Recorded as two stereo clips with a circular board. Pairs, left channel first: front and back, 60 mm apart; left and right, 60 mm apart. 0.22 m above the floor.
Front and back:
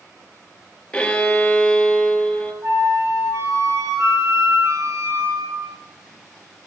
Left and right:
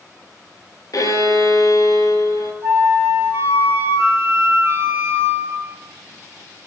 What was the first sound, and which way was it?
A violin, 75° left.